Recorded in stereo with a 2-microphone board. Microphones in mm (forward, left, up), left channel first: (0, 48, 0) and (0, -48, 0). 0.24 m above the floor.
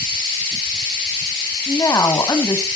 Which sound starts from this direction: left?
A woman speaking, at 1.7 s.